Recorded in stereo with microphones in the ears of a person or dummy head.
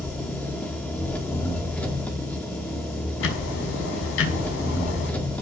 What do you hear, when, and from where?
0.0 s an engine running: 10° left (ahead or behind), 4 m
3.2 s ticking: 75° left (ahead or behind), 5.5 m